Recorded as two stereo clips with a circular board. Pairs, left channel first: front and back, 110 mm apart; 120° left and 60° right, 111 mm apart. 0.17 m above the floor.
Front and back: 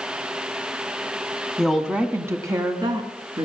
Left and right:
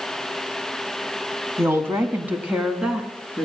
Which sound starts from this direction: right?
A woman speaking, at 1.6 s.